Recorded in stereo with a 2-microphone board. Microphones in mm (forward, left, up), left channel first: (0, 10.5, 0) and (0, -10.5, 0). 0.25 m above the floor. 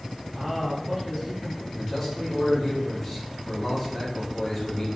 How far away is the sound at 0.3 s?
About 1.4 m.